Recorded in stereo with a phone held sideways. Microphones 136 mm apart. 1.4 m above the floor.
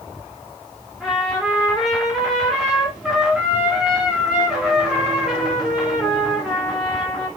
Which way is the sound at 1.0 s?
5° right (ahead or behind).